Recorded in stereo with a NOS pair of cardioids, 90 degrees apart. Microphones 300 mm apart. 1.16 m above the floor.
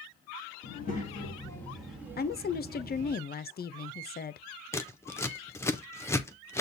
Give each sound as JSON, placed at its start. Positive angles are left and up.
{"t": 0.6, "sound": "a child speaking", "azimuth_deg": 35, "distance_m": 1.2}
{"t": 2.2, "sound": "a woman speaking", "azimuth_deg": 35, "distance_m": 0.5}
{"t": 4.7, "sound": "scissors", "azimuth_deg": 10, "distance_m": 0.6}